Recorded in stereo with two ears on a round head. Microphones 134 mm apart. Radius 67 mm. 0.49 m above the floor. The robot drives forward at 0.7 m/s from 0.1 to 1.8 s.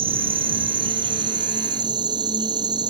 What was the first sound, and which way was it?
An insect, 40° right (ahead or behind).